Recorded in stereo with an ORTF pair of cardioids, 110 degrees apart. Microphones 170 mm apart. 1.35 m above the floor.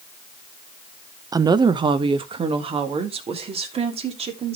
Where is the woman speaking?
25° right, 0.7 m; by 4.5 s 40° right, 3.5 m.